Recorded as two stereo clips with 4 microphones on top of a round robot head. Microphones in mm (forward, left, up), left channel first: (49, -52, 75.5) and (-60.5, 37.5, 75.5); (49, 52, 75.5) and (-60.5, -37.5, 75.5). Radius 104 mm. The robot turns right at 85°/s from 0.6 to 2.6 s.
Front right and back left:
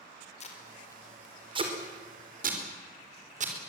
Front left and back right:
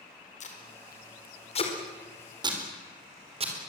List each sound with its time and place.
0.4 s tape being pulled: straight ahead, 4.5 m; by 3.5 s 170° left, 4.5 m